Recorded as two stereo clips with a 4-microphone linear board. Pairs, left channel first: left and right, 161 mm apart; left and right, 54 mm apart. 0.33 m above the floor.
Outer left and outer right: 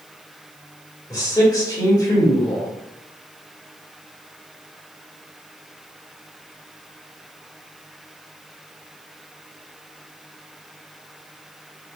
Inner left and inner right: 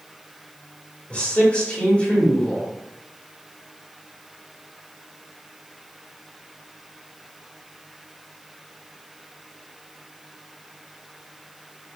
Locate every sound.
1.1 s a man speaking: 25° left (ahead or behind), 1.3 m